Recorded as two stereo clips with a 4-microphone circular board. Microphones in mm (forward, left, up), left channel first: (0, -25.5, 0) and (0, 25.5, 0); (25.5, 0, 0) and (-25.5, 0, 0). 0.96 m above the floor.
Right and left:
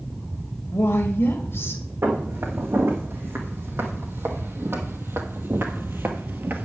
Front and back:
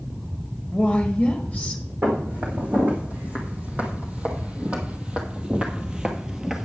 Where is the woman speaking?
80° right, 1.4 m.